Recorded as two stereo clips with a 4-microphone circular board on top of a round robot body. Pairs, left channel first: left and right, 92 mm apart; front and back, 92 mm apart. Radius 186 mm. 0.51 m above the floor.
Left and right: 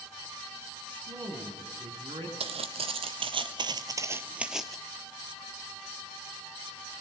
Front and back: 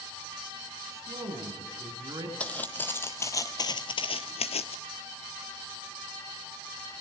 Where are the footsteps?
80° right, 1.3 m; by 4.8 s 5° left, 0.8 m.